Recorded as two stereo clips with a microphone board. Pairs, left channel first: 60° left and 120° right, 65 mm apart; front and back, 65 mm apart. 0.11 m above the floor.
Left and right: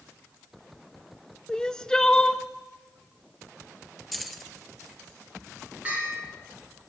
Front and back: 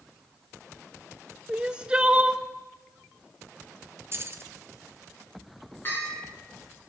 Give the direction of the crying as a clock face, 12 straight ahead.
8 o'clock.